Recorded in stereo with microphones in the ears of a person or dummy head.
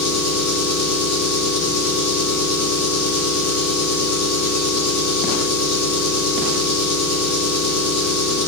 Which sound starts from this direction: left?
An engine running, at 0.0 s.